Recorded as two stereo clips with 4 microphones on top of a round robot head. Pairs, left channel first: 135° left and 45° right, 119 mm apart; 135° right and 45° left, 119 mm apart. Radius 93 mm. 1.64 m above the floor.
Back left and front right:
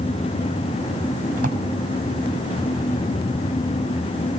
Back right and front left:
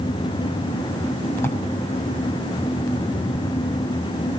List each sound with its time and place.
1.4 s a drawer: 65° right, 5.5 m